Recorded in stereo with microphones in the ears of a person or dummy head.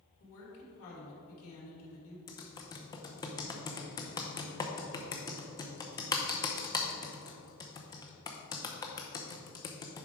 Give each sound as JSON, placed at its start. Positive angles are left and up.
{"t": 0.2, "sound": "a woman speaking", "side_deg": 80, "distance_m": 2.5}
{"t": 2.3, "sound": "typing on a keyboard", "side_deg": 20, "distance_m": 0.7}